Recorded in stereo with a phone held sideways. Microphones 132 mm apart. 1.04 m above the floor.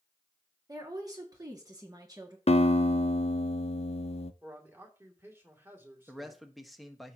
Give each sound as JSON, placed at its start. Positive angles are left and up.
{"t": 0.7, "sound": "a woman speaking", "side_deg": -25, "distance_m": 2.0}
{"t": 2.5, "sound": "a guitar", "side_deg": 50, "distance_m": 0.6}
{"t": 4.4, "sound": "a man speaking", "side_deg": -15, "distance_m": 2.5}
{"t": 6.1, "sound": "a man speaking", "side_deg": 0, "distance_m": 1.3}